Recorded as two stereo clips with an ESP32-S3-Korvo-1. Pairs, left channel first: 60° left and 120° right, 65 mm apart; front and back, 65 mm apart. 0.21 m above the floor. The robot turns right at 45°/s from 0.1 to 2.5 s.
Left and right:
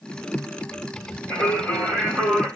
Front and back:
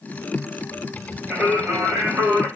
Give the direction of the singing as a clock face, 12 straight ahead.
9 o'clock.